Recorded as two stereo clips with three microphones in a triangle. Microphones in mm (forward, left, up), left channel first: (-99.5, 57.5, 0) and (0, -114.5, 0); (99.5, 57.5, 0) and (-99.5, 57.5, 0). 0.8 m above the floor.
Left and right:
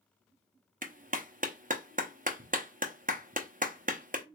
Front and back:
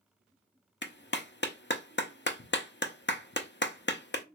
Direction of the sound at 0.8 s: 20° right.